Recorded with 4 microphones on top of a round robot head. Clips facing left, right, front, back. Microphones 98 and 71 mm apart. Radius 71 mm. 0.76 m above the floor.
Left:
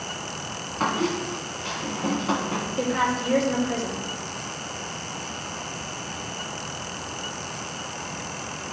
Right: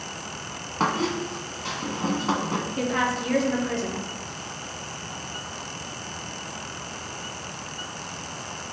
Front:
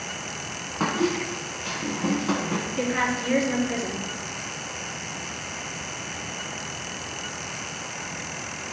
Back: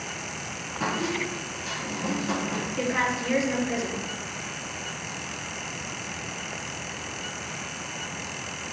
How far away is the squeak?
About 0.9 m.